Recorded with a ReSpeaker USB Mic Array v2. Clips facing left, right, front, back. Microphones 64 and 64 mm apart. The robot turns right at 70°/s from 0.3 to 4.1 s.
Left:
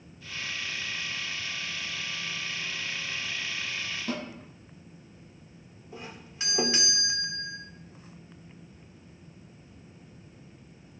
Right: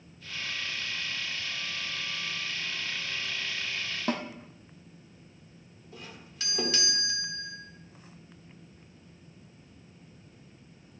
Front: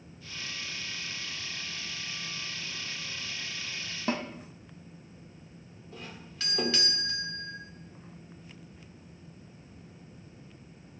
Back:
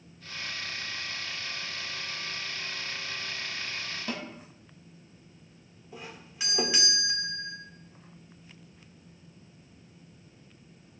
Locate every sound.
4.1 s a snare drum: 60° right, 1.5 m; by 4.2 s 55° right, 1.5 m
5.9 s a doorbell: 120° left, 1.8 m